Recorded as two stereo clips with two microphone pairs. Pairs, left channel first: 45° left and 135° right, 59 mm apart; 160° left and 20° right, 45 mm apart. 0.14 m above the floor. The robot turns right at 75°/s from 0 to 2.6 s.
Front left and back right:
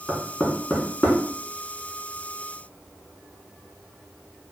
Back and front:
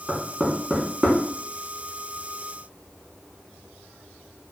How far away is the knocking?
About 0.7 m.